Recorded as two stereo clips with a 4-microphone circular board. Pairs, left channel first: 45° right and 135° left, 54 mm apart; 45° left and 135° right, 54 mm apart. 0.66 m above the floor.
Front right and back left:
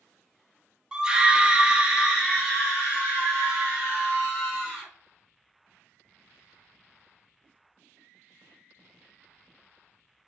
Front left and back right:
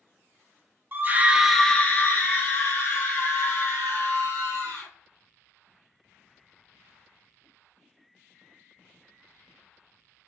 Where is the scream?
160° right, 0.7 m; by 4.9 s 45° left, 2.5 m.